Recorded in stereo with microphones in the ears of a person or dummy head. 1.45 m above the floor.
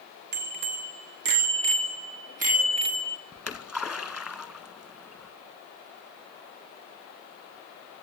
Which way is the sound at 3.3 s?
5° right (ahead or behind).